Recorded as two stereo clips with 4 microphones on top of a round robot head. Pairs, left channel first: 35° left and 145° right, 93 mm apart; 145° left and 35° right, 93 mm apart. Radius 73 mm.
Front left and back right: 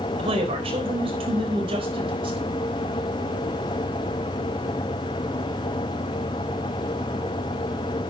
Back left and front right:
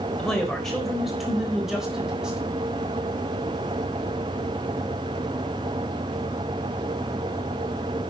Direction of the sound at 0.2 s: 135° right.